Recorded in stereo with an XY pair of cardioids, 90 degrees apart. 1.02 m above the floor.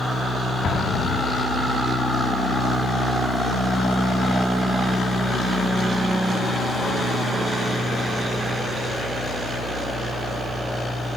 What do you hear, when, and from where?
0.6 s an explosion: 65° left, 1.8 m